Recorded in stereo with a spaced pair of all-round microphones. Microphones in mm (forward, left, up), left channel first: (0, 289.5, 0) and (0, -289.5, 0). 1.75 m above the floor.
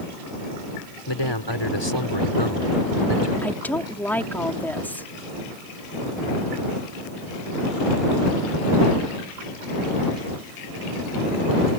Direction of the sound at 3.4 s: 5° left (ahead or behind).